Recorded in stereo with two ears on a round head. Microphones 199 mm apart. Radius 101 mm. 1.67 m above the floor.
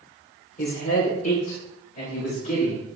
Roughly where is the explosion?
I don't hear an explosion.